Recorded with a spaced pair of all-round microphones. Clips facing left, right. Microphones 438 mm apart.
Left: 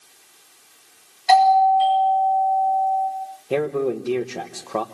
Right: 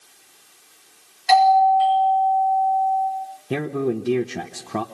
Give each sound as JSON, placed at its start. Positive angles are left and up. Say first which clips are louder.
{"t": 1.3, "sound": "a doorbell", "louder": "even", "side_deg": 55, "distance_m": 8.5}
{"t": 3.5, "sound": "a man speaking", "louder": "left 1 dB", "side_deg": -30, "distance_m": 1.0}